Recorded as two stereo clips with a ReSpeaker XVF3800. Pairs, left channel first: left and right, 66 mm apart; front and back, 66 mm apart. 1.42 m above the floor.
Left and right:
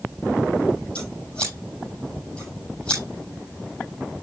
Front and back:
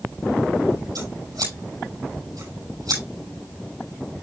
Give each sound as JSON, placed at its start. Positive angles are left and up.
{"t": 0.9, "sound": "scissors", "azimuth_deg": 170, "distance_m": 7.0}